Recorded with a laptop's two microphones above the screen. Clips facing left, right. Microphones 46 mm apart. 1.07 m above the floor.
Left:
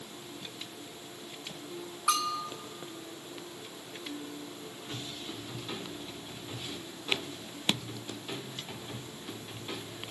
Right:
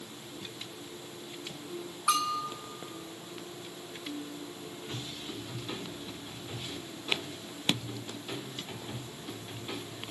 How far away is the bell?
About 1.3 m.